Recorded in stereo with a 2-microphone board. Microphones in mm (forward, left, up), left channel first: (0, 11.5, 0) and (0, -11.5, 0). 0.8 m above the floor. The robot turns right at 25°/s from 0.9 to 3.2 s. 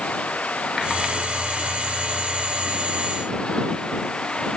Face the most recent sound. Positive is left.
turn(degrees=130)